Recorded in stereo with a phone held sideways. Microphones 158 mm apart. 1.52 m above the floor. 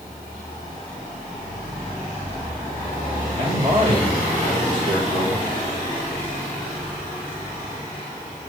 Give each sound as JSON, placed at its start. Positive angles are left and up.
{"t": 3.4, "sound": "a man speaking", "side_deg": -45, "distance_m": 4.5}